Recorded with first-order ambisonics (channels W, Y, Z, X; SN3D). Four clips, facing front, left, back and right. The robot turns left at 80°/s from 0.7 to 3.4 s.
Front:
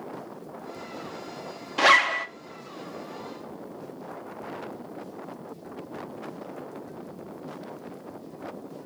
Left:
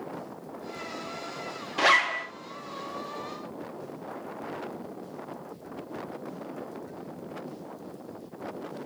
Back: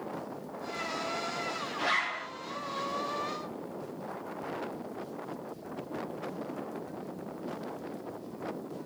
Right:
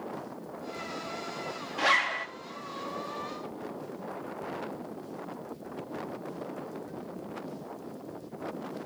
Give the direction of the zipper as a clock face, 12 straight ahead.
11 o'clock.